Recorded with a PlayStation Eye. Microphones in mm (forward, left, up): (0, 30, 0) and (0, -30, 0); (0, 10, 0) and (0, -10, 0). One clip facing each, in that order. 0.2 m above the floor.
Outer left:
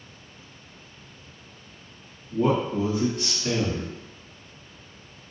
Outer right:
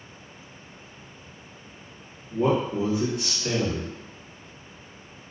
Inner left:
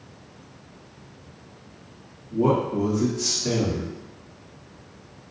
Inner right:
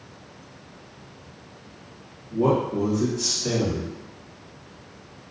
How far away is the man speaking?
About 1.5 m.